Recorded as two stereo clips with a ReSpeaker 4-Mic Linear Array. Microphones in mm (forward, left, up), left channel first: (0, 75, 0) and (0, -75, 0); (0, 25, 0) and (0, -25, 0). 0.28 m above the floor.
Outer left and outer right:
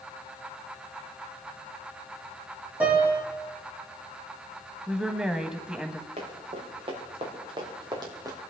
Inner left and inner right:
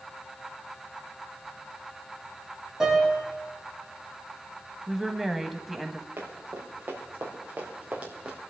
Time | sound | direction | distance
2.8 | a piano | 10° right (ahead or behind) | 8.5 m
4.9 | a woman speaking | 5° right (ahead or behind) | 1.4 m
6.2 | running footsteps | 40° right (ahead or behind) | 6 m